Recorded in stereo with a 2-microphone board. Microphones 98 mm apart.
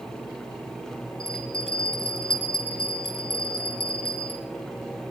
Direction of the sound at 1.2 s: 65° left (ahead or behind).